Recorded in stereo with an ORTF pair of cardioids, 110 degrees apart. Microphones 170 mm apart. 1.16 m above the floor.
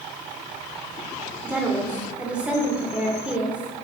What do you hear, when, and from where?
1.4 s a woman speaking: 5° right, 3 m